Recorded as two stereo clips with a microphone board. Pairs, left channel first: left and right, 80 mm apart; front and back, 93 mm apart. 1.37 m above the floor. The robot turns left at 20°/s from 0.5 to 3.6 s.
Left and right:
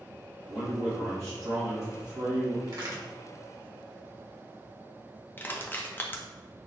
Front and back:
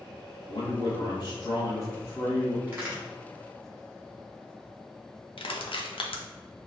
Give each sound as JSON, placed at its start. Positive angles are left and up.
{"t": 0.5, "sound": "a man speaking", "azimuth_deg": -25, "distance_m": 1.1}
{"t": 2.7, "sound": "a crack", "azimuth_deg": -105, "distance_m": 1.5}
{"t": 5.4, "sound": "crushing", "azimuth_deg": 25, "distance_m": 0.5}